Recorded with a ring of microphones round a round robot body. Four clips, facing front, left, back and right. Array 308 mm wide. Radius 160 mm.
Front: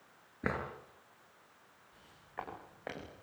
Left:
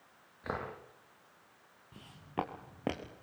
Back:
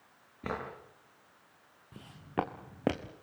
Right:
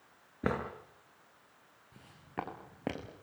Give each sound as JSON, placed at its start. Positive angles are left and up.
{"t": 0.4, "sound": "a drawer", "azimuth_deg": -75, "distance_m": 7.5}
{"t": 1.9, "sound": "footsteps", "azimuth_deg": 170, "distance_m": 5.0}